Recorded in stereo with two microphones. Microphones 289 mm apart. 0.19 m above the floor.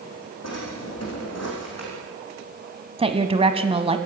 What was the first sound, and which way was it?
A drawer, 60° left (ahead or behind).